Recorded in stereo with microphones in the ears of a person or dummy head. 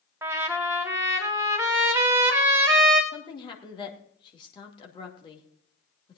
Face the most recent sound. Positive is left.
turn(degrees=25)  # may be behind; listen again after turning